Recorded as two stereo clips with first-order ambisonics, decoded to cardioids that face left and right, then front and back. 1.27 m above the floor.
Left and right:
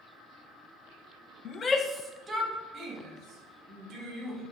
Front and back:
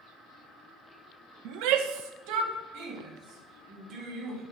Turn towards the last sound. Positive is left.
turn(degrees=-145)